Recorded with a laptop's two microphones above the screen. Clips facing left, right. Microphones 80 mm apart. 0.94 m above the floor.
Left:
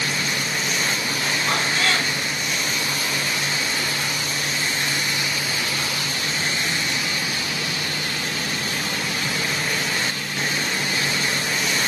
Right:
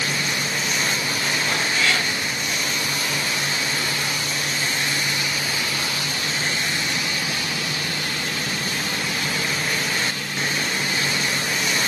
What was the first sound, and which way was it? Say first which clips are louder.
A cat meowing: left 1 dB; 45° left (ahead or behind).